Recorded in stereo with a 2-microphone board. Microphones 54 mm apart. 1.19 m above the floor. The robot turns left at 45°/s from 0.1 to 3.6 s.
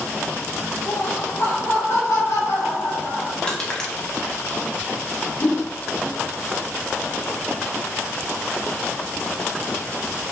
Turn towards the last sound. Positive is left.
turn(degrees=80)